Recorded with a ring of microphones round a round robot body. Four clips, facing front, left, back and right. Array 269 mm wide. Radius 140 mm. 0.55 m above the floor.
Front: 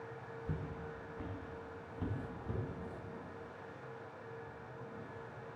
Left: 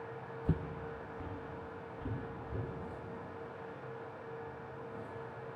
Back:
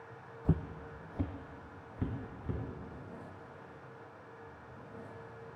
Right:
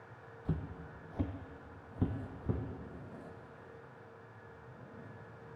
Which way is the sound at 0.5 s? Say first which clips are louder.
Left 3 dB, back 9 dB; 160° left.